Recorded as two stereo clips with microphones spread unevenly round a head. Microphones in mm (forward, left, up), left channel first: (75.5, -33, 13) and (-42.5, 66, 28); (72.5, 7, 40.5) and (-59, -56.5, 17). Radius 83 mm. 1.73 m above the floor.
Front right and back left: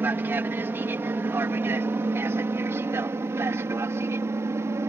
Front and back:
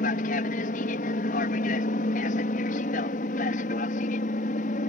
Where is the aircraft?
65° left.